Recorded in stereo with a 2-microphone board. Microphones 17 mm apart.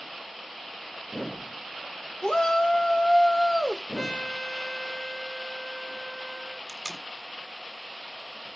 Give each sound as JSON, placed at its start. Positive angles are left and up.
{"t": 2.2, "sound": "a shout", "side_deg": 40, "distance_m": 1.7}
{"t": 4.0, "sound": "a trumpet", "side_deg": 35, "distance_m": 2.0}
{"t": 6.7, "sound": "tape being pulled", "side_deg": 5, "distance_m": 1.7}